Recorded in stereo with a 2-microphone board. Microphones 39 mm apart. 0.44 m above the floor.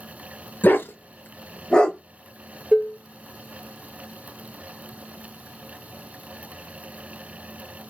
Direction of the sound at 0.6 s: 55° left (ahead or behind).